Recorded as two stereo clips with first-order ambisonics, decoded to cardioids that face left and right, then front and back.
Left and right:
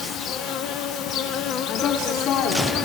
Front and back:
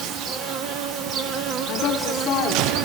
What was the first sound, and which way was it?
An insect, 135° left.